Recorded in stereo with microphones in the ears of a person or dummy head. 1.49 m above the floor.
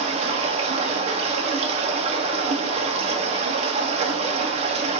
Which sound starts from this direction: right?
Running water, at 0.0 s.